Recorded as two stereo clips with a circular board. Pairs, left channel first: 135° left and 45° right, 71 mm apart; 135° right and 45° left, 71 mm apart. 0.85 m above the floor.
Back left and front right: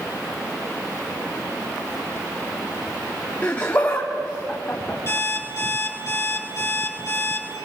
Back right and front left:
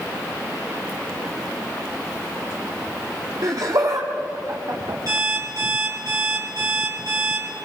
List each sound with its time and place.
3.4 s laughter: 70° left, 1.6 m; by 5.0 s 65° left, 2.5 m
5.1 s an alarm clock: 80° left, 6 m